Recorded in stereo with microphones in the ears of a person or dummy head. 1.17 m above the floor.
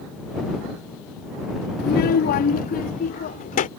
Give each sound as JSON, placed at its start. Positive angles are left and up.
{"t": 1.8, "sound": "a child speaking", "side_deg": 45}